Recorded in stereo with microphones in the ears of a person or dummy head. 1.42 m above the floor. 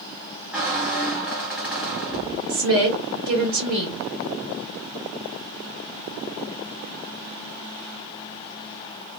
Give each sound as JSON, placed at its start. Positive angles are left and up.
{"t": 0.5, "sound": "a squeak", "side_deg": 0, "distance_m": 0.8}
{"t": 2.5, "sound": "a woman speaking", "side_deg": -55, "distance_m": 1.4}